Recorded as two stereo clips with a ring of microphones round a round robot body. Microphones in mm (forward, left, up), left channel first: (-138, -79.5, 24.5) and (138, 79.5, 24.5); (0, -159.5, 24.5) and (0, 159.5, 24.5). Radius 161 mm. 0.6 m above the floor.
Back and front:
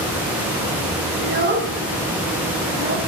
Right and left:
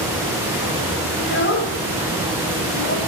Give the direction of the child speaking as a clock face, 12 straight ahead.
1 o'clock.